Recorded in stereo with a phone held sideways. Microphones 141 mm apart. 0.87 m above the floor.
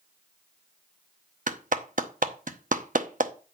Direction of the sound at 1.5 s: 70° right (ahead or behind).